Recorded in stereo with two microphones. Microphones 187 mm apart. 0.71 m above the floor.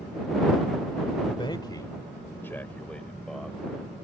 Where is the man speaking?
30° left (ahead or behind); by 4.0 s 5° right (ahead or behind).